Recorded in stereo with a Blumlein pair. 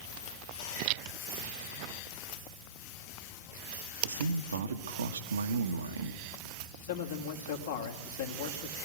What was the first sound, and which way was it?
A man speaking, 70° right.